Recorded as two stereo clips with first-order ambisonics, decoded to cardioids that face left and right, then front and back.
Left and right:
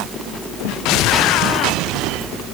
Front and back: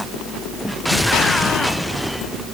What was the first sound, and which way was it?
Only background noise.